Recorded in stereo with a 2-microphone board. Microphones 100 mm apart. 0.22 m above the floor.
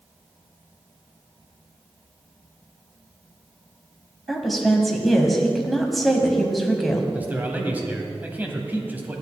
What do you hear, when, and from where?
4.3 s a woman speaking: centre (ahead or behind), 1.1 m
7.1 s a man speaking: 20° right (ahead or behind), 1.0 m